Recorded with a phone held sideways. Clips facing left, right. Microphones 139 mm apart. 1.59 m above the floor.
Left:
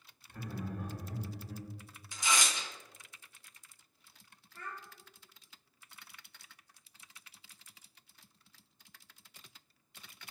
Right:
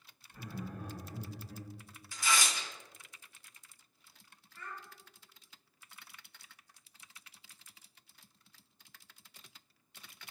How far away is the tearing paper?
About 0.7 m.